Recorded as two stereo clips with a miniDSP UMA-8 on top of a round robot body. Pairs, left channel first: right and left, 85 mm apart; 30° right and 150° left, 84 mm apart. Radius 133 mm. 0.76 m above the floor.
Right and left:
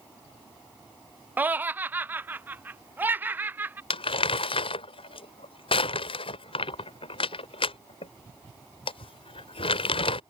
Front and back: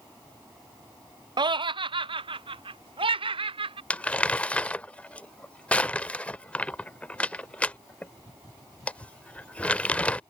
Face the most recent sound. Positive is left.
turn(degrees=-105)